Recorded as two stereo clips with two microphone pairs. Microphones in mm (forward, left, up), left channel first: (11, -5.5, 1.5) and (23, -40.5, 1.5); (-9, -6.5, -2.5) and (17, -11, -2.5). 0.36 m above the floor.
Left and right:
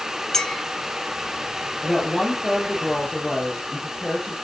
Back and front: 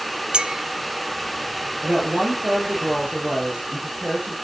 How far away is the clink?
About 0.6 m.